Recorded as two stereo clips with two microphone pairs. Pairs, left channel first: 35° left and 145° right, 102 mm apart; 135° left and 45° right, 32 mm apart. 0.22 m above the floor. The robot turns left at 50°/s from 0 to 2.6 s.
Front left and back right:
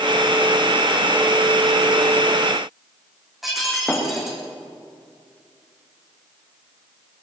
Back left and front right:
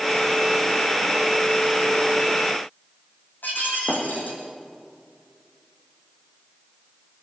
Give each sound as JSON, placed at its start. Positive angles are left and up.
{"t": 3.4, "sound": "breaking glass", "azimuth_deg": 125, "distance_m": 7.5}